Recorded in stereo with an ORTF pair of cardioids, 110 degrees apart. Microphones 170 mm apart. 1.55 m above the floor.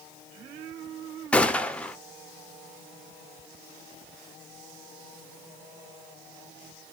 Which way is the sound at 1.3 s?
5° left.